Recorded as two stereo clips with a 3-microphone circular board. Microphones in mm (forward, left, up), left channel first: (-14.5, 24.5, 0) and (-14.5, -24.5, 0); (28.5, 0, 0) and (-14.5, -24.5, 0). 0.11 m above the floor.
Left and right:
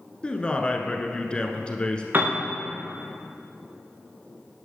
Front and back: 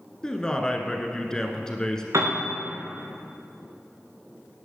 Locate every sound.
0.2 s a man speaking: 80° left, 1.1 m
2.1 s a piano: 145° right, 2.5 m